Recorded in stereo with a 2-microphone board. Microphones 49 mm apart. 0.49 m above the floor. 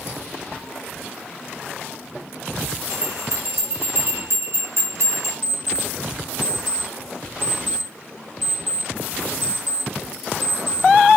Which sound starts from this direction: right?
A bell, at 2.9 s.